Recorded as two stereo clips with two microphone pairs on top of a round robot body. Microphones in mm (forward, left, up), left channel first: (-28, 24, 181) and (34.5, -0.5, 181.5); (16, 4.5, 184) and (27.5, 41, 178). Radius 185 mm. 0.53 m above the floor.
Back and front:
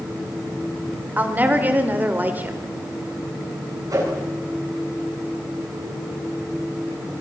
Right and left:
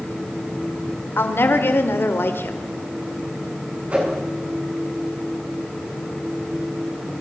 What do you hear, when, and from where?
1.2 s a woman speaking: 85° right, 2 m
3.9 s a whoosh: 15° left, 7.5 m